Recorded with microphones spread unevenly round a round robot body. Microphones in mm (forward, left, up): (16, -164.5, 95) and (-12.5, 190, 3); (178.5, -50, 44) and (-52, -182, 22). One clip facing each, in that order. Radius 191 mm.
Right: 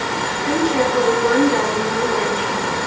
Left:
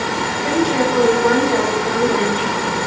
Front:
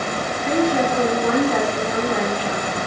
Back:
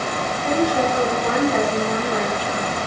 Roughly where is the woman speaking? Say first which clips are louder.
Left 1 dB, front 1 dB; left.